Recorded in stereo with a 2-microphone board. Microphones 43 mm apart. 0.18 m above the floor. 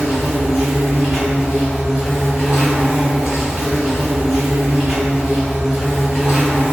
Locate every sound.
0.0 s an insect: 5° right (ahead or behind), 0.9 m